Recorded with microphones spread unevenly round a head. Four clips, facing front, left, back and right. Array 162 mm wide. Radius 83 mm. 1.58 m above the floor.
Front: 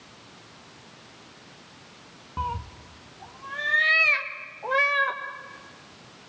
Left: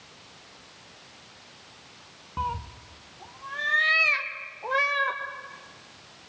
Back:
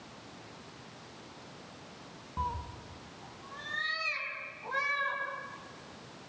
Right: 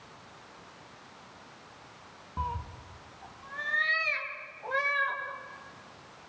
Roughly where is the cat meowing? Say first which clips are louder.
Left 4 dB, front 5 dB; ahead left.